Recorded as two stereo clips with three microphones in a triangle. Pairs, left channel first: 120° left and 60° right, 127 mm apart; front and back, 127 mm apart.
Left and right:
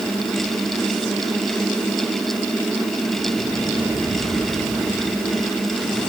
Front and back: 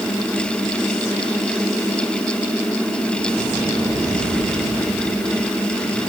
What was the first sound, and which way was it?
Only background noise.